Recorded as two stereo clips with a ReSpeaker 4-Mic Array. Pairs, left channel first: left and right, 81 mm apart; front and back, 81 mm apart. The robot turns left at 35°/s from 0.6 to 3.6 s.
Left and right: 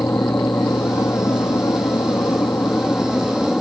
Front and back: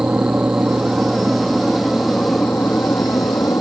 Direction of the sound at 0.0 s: 120° left.